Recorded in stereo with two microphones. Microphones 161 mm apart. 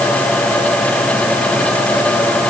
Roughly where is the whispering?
No whispering in this recording.